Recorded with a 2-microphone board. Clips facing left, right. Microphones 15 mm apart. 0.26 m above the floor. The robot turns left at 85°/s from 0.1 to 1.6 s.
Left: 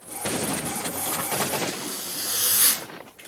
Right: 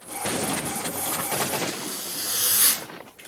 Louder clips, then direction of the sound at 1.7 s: Even; 20° right (ahead or behind).